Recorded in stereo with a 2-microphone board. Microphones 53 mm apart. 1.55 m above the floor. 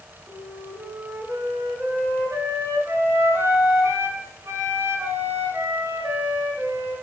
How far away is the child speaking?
No child speaking in this recording.